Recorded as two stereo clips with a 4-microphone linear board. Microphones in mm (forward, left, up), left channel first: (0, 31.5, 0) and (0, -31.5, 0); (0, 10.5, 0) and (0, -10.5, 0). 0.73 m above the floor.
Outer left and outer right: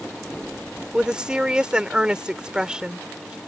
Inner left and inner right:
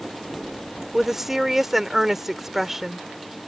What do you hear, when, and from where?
0.9 s a woman speaking: 15° right (ahead or behind)